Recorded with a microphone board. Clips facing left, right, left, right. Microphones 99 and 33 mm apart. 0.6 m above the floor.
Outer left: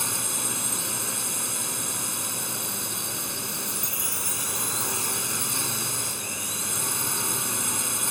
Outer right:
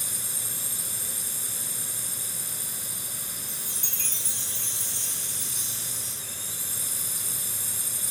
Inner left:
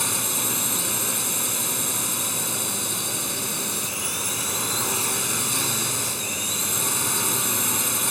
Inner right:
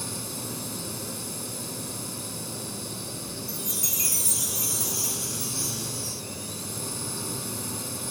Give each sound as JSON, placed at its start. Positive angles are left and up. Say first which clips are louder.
{"t": 0.0, "sound": "a drone", "louder": "outer left 10 dB, inner left 8 dB", "side_deg": 75}
{"t": 3.5, "sound": "a chime", "louder": "outer left 8 dB, inner left 4 dB", "side_deg": -80}